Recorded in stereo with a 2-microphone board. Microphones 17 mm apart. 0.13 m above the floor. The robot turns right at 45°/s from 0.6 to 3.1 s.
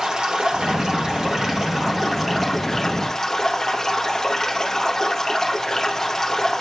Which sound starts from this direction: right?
Running water, at 0.0 s.